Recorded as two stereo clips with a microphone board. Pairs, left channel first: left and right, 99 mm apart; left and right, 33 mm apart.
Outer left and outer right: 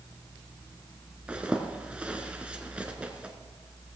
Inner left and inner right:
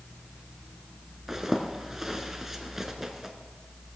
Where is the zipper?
10° right (ahead or behind), 1.1 m.